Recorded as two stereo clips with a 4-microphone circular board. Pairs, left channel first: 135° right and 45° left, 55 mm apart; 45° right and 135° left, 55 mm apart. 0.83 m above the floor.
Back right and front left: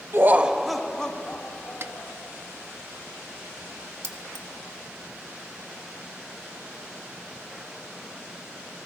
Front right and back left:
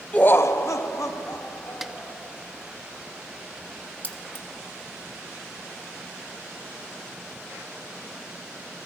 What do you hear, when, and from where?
0.1 s laughter: 15° left, 0.6 m; by 2.2 s 75° right, 2.5 m
1.8 s a snare drum: 50° left, 0.6 m
4.0 s keys jangling: 10° left, 1.4 m